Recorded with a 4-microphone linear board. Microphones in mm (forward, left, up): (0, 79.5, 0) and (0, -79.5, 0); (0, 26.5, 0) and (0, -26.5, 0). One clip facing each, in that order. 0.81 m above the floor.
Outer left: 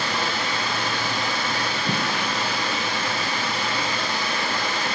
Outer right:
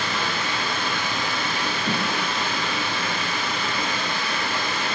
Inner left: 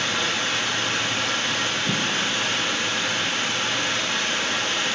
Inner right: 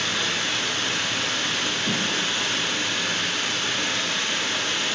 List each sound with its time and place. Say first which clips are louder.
0.0 s running water: outer left 1 dB, inner left 1 dB; 35° left (ahead or behind), 1.3 m
1.9 s a thud: outer right 1 dB, inner left 1 dB; 35° left (ahead or behind), 1.6 m